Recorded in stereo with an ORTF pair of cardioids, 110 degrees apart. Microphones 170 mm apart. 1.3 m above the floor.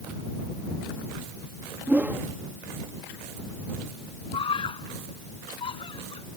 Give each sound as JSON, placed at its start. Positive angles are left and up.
{"t": 1.9, "sound": "a whoosh", "azimuth_deg": -10}
{"t": 4.3, "sound": "a scream", "azimuth_deg": 30}